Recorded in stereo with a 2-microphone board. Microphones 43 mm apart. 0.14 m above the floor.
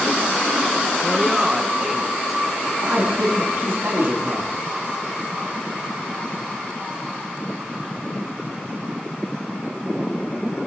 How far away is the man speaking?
About 4.5 m.